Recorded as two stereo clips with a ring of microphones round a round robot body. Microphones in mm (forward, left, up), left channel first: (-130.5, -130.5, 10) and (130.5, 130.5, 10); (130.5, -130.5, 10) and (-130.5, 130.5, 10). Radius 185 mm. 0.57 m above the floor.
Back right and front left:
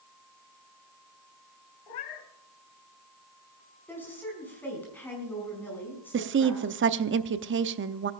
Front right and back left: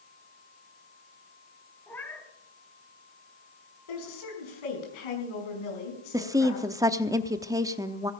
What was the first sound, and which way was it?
A cat meowing, 130° right.